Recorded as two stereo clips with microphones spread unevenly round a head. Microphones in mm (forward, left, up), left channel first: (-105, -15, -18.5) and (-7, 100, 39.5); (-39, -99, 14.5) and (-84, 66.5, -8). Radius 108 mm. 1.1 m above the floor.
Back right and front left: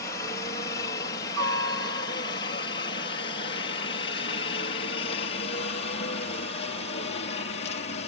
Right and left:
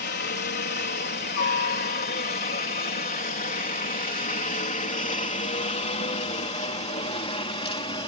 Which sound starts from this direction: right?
A helicopter, at 0.0 s.